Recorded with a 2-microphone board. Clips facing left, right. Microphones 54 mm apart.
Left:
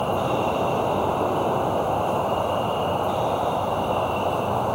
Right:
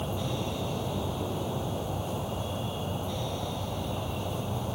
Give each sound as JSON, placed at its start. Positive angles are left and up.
{"t": 0.0, "sound": "an insect", "side_deg": 65}